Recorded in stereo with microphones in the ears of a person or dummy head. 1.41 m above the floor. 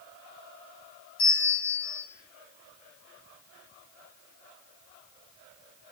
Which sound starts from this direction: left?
A bell, at 1.2 s.